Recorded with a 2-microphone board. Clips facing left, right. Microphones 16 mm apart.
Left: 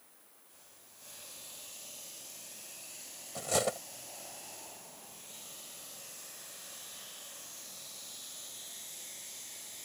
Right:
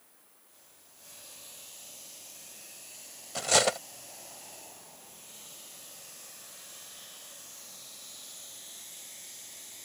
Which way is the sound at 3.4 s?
50° right (ahead or behind).